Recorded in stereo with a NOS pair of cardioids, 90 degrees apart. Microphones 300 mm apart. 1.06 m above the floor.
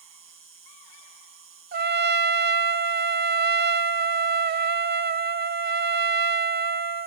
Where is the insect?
45° right.